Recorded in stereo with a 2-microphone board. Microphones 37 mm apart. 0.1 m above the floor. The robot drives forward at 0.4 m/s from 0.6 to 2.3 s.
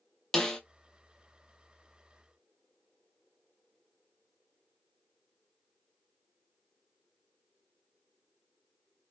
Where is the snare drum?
15° left (ahead or behind), 0.6 m.